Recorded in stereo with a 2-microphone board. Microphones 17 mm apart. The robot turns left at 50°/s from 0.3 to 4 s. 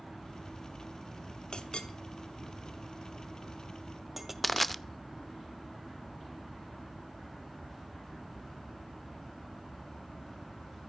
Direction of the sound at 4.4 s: 10° left (ahead or behind).